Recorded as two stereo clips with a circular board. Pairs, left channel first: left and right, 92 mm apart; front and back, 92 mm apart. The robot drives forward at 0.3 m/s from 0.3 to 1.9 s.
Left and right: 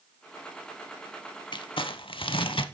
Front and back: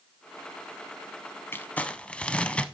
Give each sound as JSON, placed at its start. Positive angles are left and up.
{"t": 1.5, "sound": "crumpling", "azimuth_deg": 65, "distance_m": 0.5}